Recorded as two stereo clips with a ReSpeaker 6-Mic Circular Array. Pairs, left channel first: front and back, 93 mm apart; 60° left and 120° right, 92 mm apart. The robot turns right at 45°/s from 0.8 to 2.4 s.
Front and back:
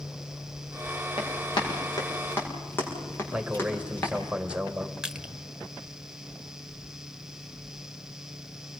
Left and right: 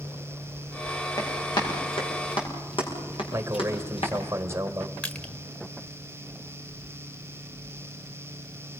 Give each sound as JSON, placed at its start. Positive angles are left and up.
{"t": 1.2, "sound": "running footsteps", "azimuth_deg": 10, "distance_m": 8.0}
{"t": 3.3, "sound": "a man speaking", "azimuth_deg": -115, "distance_m": 1.6}
{"t": 5.0, "sound": "crushing", "azimuth_deg": 110, "distance_m": 0.9}